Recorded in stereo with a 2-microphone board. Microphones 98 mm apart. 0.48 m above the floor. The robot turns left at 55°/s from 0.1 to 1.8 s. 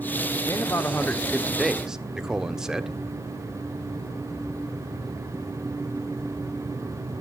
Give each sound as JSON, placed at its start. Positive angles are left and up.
{"t": 0.5, "sound": "a man speaking", "azimuth_deg": 65, "distance_m": 0.8}